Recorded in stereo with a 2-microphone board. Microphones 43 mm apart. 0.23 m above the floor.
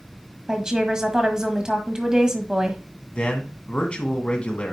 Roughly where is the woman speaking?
Centre.